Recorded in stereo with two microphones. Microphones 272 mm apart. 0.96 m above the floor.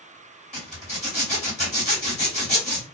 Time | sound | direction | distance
0.5 | a zipper | 25° left (ahead or behind) | 1.6 m